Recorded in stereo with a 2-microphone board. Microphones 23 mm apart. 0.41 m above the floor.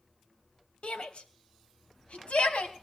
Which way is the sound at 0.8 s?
60° left (ahead or behind).